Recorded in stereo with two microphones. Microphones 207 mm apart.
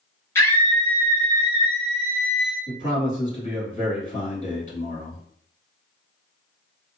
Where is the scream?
10° left (ahead or behind), 1.3 m; by 2.6 s centre (ahead or behind), 1.1 m.